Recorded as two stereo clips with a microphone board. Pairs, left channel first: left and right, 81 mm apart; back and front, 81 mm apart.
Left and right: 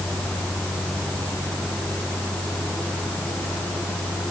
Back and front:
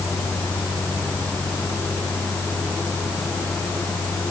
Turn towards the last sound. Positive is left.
No sound to turn to.